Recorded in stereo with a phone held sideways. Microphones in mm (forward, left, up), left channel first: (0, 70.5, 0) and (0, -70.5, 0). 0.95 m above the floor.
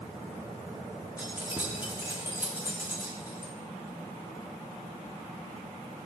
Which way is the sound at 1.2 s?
15° right (ahead or behind).